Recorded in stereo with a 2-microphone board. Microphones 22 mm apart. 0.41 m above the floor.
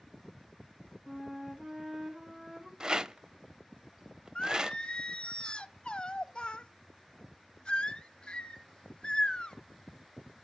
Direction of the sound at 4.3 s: 45° left (ahead or behind).